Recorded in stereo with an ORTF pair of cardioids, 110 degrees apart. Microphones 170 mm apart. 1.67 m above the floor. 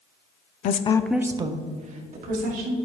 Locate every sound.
0.6 s a woman speaking: 55° left, 0.6 m; by 2.8 s 55° right, 1.9 m